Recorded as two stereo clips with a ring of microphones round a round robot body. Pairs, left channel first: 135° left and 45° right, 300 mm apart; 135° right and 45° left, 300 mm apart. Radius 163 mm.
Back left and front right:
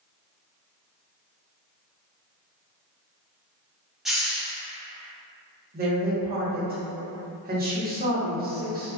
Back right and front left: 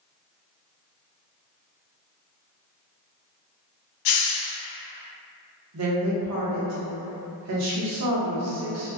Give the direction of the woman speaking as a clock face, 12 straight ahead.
12 o'clock.